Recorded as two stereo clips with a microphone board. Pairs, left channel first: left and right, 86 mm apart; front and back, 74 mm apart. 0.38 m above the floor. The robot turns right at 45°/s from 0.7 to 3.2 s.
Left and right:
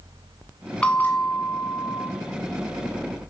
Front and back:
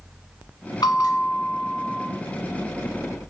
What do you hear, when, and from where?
0.8 s a bell: 15° left, 1.4 m; by 2.1 s 70° left, 1.4 m